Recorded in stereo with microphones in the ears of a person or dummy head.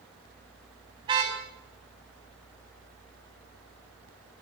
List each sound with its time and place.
1.0 s a car horn: 25° right (ahead or behind), 4.5 m